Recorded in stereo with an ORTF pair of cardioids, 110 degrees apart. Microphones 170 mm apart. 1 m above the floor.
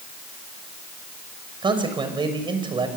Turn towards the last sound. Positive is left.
turn(degrees=-30)